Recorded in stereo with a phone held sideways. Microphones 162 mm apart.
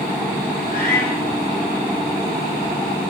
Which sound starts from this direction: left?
A cat meowing, at 0.7 s.